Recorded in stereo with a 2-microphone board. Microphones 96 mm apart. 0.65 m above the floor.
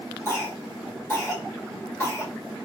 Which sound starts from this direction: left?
A cough, at 0.2 s.